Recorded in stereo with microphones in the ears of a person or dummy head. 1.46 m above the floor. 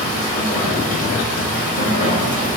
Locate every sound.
0.0 s running water: 40° left (ahead or behind), 0.8 m